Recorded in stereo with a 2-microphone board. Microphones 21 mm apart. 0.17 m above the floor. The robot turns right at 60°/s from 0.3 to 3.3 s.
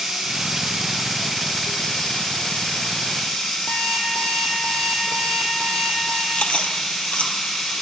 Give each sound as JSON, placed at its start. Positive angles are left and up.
{"t": 0.0, "sound": "running water", "azimuth_deg": -70, "distance_m": 8.5}
{"t": 3.7, "sound": "an alarm clock", "side_deg": 75, "distance_m": 3.5}
{"t": 6.3, "sound": "chewing", "side_deg": 70, "distance_m": 1.9}